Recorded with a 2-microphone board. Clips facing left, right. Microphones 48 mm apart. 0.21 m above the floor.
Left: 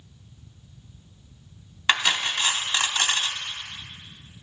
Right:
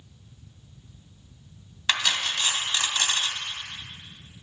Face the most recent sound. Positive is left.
turn(degrees=25)  # may be behind; listen again after turning